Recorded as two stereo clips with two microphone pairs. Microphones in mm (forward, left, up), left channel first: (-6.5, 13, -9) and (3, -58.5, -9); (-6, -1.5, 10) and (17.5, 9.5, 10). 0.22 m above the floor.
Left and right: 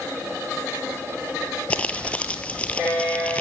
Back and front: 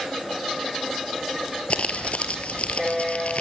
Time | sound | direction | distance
1.7 | crumpling | 170° left | 0.9 m